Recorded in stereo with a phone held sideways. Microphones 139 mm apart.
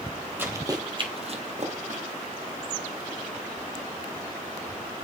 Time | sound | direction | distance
0.4 | running footsteps | 15° right (ahead or behind) | 1.6 m